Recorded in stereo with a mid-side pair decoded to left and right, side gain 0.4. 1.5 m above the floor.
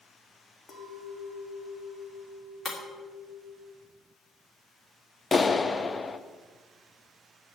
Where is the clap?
30° left, 0.8 m.